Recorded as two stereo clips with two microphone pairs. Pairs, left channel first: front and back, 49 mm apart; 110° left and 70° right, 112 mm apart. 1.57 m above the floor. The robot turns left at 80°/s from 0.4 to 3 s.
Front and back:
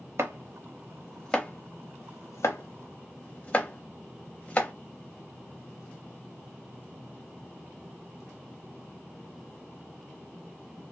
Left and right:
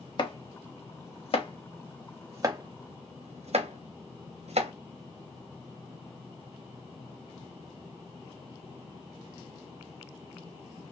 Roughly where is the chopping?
Behind left.